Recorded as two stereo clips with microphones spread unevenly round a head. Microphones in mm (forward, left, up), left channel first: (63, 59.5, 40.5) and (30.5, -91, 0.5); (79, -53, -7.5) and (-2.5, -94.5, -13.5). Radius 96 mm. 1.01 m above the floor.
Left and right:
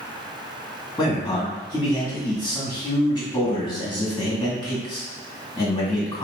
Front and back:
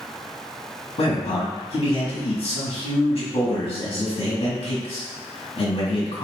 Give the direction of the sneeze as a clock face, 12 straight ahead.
No sneeze in this recording.